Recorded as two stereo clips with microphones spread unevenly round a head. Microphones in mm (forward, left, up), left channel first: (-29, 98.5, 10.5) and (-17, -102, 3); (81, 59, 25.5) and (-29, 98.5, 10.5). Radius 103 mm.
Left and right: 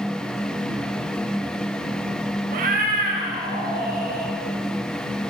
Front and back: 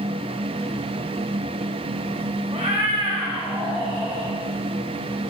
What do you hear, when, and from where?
2.5 s a cat meowing: 130° right, 0.6 m